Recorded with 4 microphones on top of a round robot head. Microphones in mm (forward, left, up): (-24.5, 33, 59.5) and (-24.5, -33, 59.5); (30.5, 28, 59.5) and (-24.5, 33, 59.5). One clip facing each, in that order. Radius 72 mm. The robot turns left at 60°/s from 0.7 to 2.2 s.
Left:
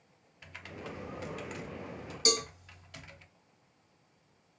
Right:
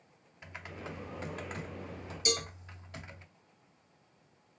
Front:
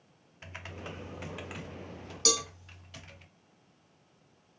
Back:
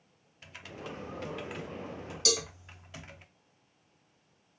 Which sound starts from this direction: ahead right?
Typing on a keyboard, at 0.4 s.